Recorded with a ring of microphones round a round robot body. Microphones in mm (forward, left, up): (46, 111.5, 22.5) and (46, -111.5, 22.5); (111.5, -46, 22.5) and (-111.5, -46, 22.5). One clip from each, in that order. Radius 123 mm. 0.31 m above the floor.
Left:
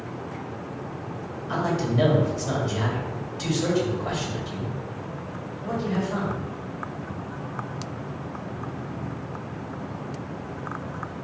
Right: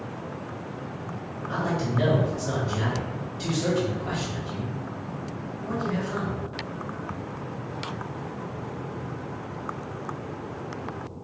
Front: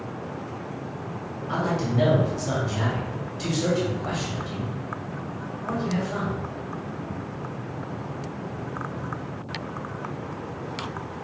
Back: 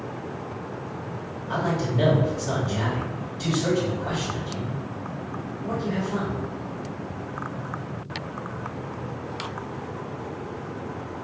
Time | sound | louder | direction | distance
1.5 | a man speaking | left 2 dB, even | 60° left | 1.6 m